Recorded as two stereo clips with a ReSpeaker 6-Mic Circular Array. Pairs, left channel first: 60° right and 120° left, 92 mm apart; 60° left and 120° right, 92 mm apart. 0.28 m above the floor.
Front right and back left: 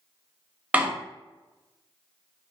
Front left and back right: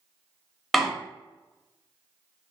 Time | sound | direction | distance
0.7 | a door slam | 150° left | 0.6 m